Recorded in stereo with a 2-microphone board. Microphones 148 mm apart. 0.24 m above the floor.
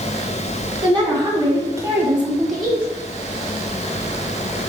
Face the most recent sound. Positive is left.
turn(degrees=15)  # may be behind; listen again after turning